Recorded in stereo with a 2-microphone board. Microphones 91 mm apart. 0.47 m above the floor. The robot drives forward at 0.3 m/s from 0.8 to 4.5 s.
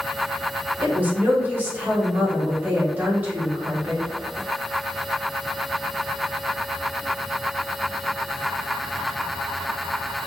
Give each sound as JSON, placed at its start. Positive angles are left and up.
{"t": 0.8, "sound": "a woman speaking", "side_deg": -20, "distance_m": 1.0}